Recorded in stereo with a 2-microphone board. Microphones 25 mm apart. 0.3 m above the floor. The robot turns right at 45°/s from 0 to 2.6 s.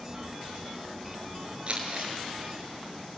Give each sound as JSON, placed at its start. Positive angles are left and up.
{"t": 1.7, "sound": "crumpling", "side_deg": -35, "distance_m": 4.5}